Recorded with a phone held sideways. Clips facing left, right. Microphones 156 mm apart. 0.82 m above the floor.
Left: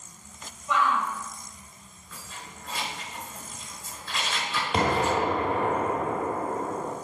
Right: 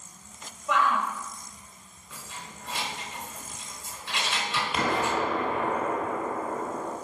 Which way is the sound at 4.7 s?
35° left (ahead or behind).